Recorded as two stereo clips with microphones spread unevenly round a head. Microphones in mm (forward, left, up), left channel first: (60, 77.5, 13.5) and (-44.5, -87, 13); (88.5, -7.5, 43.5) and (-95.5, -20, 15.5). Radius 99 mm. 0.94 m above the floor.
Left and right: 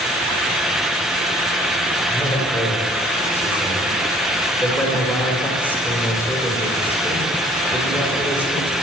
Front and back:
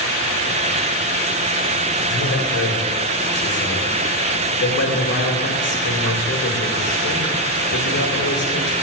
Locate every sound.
2.1 s a man speaking: 25° right, 3 m